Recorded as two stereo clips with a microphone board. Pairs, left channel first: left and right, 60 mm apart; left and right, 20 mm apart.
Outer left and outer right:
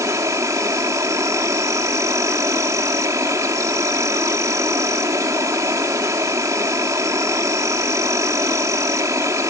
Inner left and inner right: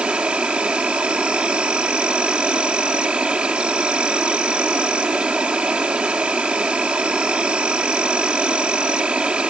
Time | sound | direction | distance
0.0 | an insect | 60° right (ahead or behind) | ?